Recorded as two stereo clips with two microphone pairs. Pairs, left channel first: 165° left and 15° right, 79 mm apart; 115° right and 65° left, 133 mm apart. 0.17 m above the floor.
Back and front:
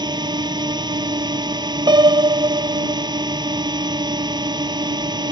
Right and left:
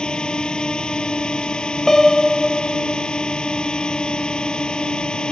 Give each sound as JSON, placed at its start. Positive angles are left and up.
{"t": 0.0, "sound": "a drone", "azimuth_deg": -30}
{"t": 1.9, "sound": "a piano", "azimuth_deg": -30}